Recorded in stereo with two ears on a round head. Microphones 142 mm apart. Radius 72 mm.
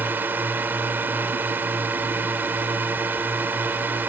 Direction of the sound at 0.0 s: 10° right (ahead or behind).